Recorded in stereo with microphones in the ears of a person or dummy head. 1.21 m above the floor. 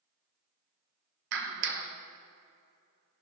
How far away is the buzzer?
No buzzer in this recording.